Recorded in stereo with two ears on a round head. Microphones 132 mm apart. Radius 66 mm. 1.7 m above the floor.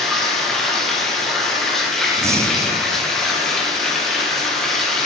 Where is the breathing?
20° right (ahead or behind), 0.5 m.